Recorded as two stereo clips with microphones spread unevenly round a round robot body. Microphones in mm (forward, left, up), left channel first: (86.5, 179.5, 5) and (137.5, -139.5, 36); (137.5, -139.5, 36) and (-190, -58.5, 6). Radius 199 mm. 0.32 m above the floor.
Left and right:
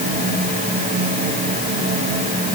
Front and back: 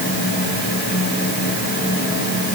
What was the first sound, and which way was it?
Only background noise.